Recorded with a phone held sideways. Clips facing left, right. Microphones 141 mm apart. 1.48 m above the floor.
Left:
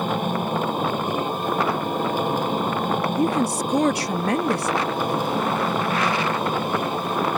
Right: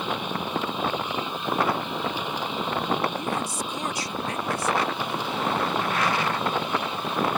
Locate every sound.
0.0 s a machine running: 50° left (ahead or behind)
3.2 s a woman speaking: 65° left (ahead or behind)